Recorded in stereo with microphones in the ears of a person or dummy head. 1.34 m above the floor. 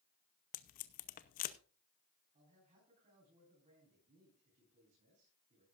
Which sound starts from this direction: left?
Tape being pulled, at 0.5 s.